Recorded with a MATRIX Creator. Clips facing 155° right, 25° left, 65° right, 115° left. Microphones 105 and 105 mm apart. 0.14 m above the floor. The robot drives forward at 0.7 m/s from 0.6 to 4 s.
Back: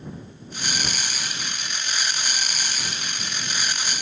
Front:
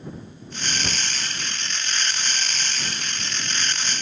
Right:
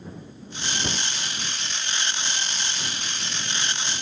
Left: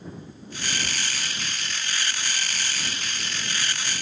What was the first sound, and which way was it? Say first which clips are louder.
A cupboard door: front 1 dB, right 3 dB; 60° right.